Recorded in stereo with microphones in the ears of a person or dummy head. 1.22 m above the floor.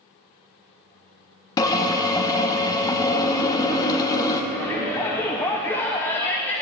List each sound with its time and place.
1.6 s a drill: 15° left (ahead or behind), 0.8 m
4.5 s a shout: 10° left (ahead or behind), 0.5 m